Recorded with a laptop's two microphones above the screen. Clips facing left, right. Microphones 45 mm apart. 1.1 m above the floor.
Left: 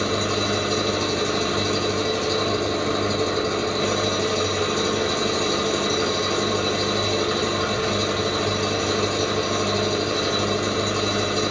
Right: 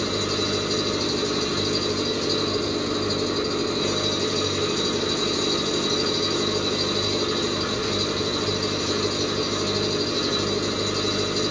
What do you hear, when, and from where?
0.0 s an engine running: 35° left (ahead or behind), 1.3 m